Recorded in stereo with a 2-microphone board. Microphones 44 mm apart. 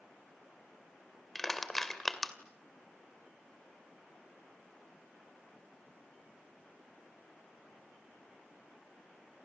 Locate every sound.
1.4 s crushing: 5° left (ahead or behind), 2 m